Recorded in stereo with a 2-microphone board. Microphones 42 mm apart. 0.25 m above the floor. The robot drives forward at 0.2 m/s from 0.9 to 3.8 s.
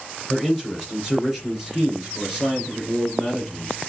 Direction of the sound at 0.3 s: 10° left (ahead or behind).